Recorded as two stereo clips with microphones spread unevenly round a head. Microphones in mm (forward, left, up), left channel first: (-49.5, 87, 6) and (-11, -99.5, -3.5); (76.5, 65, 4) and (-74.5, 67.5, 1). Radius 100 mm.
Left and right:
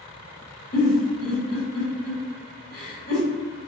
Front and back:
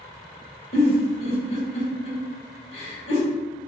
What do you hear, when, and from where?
0.7 s a giggle: 50° left, 1.6 m